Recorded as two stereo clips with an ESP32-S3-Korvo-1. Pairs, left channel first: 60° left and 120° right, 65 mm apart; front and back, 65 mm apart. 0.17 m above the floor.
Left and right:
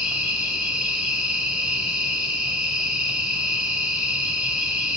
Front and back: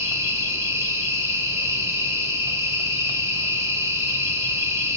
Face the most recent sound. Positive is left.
turn(degrees=175)